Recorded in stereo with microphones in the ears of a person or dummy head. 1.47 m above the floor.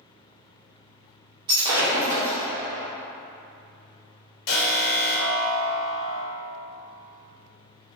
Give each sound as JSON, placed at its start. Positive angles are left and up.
{"t": 1.5, "sound": "breaking glass", "side_deg": -20, "distance_m": 0.9}
{"t": 4.5, "sound": "an alarm", "side_deg": 55, "distance_m": 1.4}